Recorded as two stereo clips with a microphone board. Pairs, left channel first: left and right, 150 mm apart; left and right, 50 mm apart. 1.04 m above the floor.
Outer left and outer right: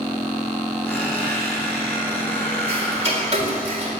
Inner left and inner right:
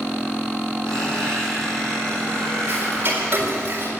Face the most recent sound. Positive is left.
turn(degrees=-45)  # may be behind; listen again after turning